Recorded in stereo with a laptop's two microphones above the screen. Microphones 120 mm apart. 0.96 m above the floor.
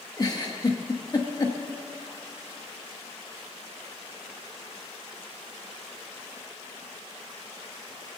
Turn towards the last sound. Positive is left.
turn(degrees=35)  # may be behind; listen again after turning